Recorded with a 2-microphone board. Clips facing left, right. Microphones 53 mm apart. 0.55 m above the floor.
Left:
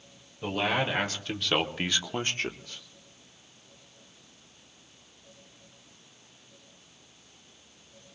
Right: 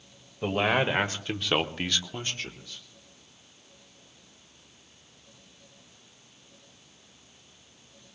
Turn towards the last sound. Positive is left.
turn(degrees=55)  # may be behind; listen again after turning